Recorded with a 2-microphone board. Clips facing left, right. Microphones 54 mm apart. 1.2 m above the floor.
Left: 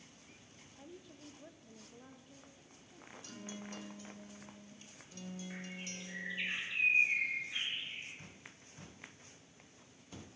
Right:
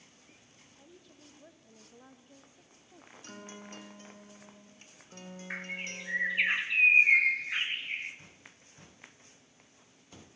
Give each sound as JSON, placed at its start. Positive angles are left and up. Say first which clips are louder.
{"t": 0.8, "sound": "a woman speaking", "louder": "left 4 dB", "side_deg": 15, "distance_m": 1.1}
{"t": 3.2, "sound": "a guitar", "louder": "right 1 dB", "side_deg": -45, "distance_m": 2.5}
{"t": 5.5, "sound": "a bird", "louder": "right 8 dB", "side_deg": -70, "distance_m": 1.4}